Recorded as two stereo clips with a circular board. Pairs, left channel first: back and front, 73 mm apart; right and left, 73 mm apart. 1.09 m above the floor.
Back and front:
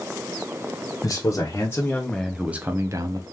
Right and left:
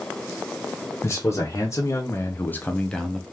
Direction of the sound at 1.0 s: 140° right.